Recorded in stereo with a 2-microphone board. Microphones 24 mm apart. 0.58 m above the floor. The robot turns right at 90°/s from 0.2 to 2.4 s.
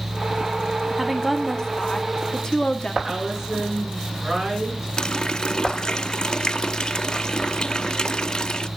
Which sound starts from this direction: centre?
A woman speaking, at 1.0 s.